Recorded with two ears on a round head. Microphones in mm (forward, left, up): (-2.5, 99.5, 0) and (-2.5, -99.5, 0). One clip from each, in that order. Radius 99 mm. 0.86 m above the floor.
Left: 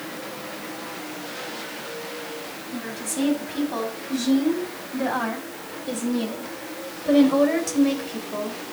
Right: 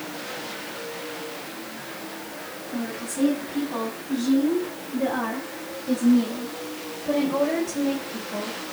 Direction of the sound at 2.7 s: 85° left.